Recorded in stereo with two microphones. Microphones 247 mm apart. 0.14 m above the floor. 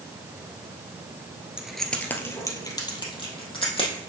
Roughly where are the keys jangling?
Centre.